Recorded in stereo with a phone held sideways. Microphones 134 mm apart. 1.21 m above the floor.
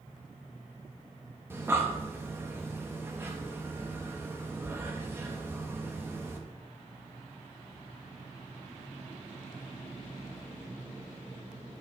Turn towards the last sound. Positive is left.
turn(degrees=-15)  # may be behind; listen again after turning